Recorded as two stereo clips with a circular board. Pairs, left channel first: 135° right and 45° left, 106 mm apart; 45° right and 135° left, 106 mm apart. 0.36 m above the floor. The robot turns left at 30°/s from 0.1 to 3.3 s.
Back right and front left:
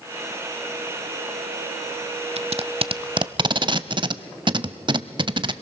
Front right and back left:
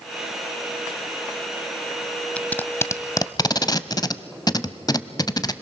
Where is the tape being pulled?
35° left, 0.6 m; by 5.5 s 5° left, 0.6 m.